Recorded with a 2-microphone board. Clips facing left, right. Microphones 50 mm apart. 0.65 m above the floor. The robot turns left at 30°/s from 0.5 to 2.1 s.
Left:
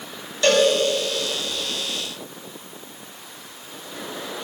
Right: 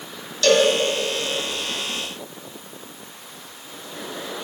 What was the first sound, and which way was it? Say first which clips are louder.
A cowbell: right 1 dB; 25° left (ahead or behind).